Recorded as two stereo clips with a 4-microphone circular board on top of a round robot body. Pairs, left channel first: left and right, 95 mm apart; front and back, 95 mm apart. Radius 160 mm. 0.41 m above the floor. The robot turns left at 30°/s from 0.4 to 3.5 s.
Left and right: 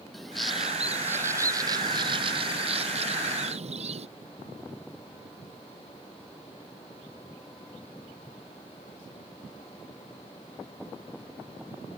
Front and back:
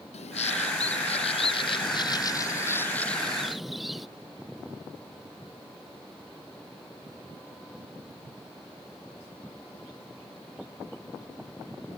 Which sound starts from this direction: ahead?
A bird, at 0.1 s.